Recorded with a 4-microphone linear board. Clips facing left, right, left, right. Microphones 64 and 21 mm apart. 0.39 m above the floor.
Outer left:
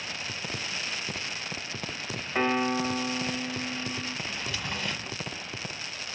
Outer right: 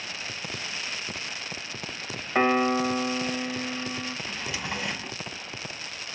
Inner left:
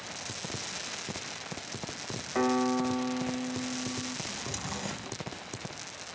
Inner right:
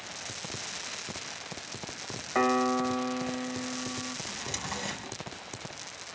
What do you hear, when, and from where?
2.4 s a piano: 20° right (ahead or behind), 0.9 m
4.3 s a drawer: 10° right (ahead or behind), 1.1 m